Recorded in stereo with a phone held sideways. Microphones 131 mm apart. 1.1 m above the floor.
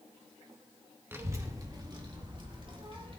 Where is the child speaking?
20° right (ahead or behind), 1.2 m; by 3.2 s 40° right (ahead or behind), 3 m.